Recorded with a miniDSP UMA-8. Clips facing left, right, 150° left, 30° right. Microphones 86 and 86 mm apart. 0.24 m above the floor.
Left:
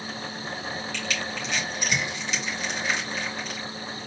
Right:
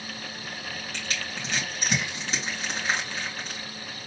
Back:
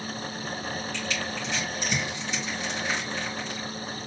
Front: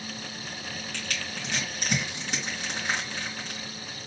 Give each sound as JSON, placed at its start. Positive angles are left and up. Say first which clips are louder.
{"t": 0.9, "sound": "crushing", "louder": "left 4 dB, back 5 dB", "azimuth_deg": -45, "distance_m": 3.0}